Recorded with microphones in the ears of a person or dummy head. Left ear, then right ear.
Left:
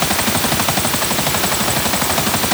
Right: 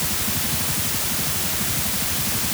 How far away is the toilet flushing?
I don't hear a toilet flushing.